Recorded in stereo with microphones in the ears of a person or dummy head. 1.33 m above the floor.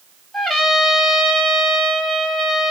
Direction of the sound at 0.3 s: 5° right (ahead or behind).